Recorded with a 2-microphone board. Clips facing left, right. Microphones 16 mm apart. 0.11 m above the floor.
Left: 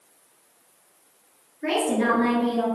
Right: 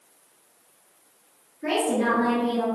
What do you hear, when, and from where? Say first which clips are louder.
1.6 s a woman speaking: left 1 dB; 30° left (ahead or behind), 1.4 m; by 2.6 s 50° left (ahead or behind), 2.0 m